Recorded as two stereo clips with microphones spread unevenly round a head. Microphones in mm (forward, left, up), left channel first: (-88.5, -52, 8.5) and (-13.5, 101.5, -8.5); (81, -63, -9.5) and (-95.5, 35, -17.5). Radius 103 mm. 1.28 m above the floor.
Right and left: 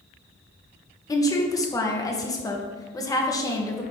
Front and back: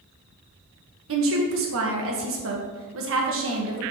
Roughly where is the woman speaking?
Behind.